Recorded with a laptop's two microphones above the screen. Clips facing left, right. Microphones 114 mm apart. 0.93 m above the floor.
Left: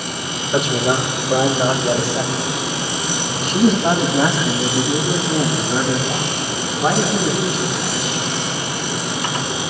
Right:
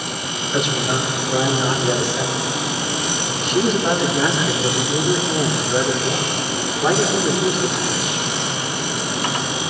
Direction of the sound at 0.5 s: 75° left (ahead or behind).